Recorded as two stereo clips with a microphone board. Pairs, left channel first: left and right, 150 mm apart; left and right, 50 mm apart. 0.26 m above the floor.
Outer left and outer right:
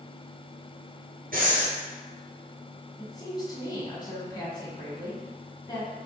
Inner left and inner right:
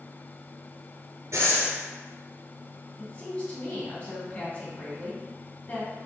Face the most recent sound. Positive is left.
turn(degrees=25)  # may be behind; listen again after turning